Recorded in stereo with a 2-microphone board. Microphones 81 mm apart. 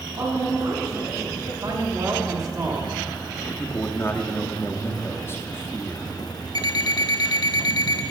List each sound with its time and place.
0.2 s a woman speaking: 50° right (ahead or behind), 3.5 m; by 1.5 s 60° right (ahead or behind), 5.5 m
1.6 s a man speaking: 45° right (ahead or behind), 1.5 m
3.6 s a man speaking: 30° left (ahead or behind), 0.7 m
6.5 s an alarm clock: 55° left (ahead or behind), 0.6 m